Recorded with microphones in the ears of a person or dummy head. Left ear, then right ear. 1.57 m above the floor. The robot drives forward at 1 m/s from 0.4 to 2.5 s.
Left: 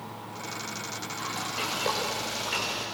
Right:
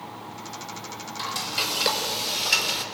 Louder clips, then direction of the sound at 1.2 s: Right 6 dB; 40° right (ahead or behind).